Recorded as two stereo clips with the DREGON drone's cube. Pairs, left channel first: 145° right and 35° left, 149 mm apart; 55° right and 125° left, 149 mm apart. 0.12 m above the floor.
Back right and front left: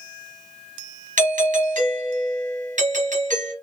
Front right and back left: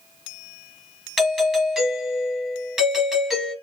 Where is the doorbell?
40° left, 3 m.